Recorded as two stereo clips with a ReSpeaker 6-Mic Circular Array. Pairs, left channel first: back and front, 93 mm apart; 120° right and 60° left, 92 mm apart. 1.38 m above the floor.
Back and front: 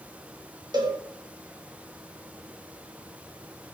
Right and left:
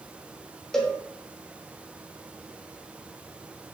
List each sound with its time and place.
0.7 s a cowbell: 35° right, 3 m